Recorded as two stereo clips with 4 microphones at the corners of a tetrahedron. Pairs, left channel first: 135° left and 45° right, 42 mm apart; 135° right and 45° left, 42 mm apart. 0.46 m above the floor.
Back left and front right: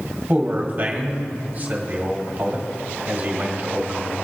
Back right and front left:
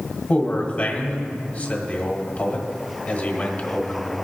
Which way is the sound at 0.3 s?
90° right.